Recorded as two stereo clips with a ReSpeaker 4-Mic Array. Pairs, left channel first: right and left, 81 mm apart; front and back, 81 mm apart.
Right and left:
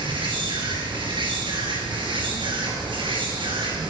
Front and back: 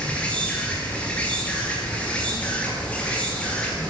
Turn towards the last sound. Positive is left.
turn(degrees=75)